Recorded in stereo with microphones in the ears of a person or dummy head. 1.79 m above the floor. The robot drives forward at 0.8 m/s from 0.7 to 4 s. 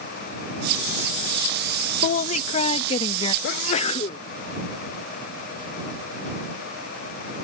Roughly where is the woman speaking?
Left.